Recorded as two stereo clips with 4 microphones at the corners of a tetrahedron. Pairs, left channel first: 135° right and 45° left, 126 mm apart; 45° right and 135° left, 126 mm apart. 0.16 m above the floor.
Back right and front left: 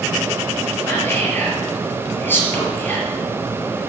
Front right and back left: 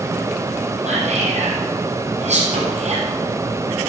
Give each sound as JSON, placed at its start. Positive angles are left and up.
{"t": 0.8, "sound": "whispering", "azimuth_deg": 150, "distance_m": 5.0}